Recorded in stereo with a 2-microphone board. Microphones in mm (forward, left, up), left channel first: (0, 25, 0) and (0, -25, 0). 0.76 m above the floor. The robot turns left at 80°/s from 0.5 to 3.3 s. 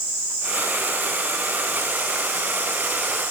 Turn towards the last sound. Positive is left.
No sound to turn to.